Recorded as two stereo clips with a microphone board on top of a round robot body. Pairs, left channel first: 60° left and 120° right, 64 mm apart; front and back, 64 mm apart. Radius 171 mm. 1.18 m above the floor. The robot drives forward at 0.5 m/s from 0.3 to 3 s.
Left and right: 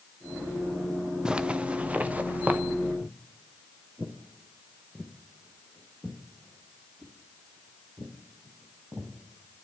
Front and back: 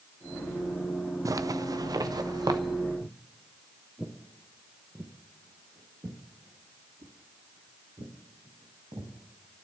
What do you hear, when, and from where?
1.2 s a zipper: 160° left, 0.5 m; by 2.6 s 175° left, 1.1 m
3.0 s footsteps: 30° right, 1.2 m; by 9.2 s 175° left, 3 m